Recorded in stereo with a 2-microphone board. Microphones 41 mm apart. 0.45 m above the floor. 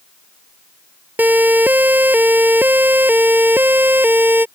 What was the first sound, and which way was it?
A siren, 45° right (ahead or behind).